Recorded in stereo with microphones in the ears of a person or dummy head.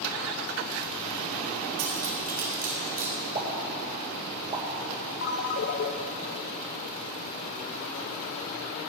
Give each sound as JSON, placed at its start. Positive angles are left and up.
{"t": 1.8, "sound": "cutlery clinking", "side_deg": -45, "distance_m": 2.0}
{"t": 3.4, "sound": "a pop", "side_deg": -25, "distance_m": 1.9}
{"t": 5.2, "sound": "a ringtone", "side_deg": 45, "distance_m": 0.8}